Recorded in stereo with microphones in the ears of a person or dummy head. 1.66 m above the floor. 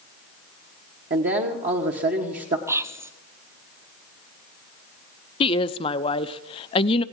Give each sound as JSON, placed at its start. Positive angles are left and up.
{"t": 1.1, "sound": "a man speaking", "side_deg": -45, "distance_m": 1.2}
{"t": 2.7, "sound": "whispering", "side_deg": -10, "distance_m": 0.5}
{"t": 5.4, "sound": "a woman speaking", "side_deg": 35, "distance_m": 0.5}